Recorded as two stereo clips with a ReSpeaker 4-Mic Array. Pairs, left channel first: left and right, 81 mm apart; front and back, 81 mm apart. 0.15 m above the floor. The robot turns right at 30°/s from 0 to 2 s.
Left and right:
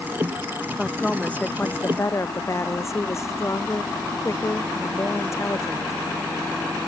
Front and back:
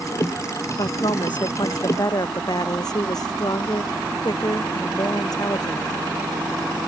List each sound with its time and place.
0.8 s a woman speaking: straight ahead; by 6.0 s 35° left